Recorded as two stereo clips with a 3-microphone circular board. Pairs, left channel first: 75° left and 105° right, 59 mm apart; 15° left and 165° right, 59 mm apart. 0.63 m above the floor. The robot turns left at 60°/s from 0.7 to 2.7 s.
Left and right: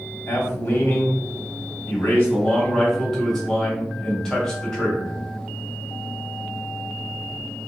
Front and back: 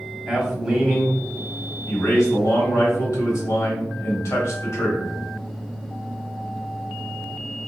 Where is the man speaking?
115° left, 1.3 m; by 5.2 s 5° right, 1.3 m.